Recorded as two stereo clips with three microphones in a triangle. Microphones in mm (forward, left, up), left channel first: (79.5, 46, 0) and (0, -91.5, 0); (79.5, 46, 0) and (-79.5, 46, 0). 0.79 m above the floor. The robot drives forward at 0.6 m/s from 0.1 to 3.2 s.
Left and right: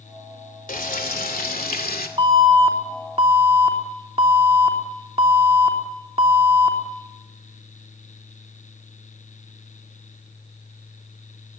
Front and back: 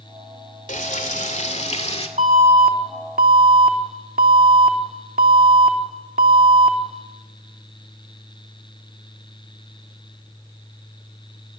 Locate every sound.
0.7 s frying: 35° left, 3 m; by 2.1 s 50° left, 2 m
2.2 s an alarm: 170° right, 2.5 m